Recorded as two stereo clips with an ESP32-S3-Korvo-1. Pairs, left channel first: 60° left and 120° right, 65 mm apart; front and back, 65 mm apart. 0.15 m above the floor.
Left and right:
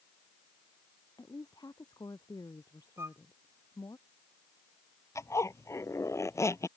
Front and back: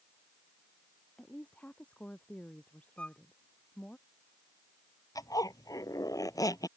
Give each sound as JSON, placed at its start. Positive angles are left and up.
{"t": 1.2, "sound": "a woman speaking", "azimuth_deg": 70}
{"t": 3.0, "sound": "a violin", "azimuth_deg": -70}
{"t": 5.2, "sound": "a zipper", "azimuth_deg": 20}